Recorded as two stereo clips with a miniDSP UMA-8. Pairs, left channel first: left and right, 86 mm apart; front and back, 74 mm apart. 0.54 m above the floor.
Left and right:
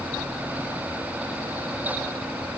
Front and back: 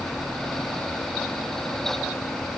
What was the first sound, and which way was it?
Only background noise.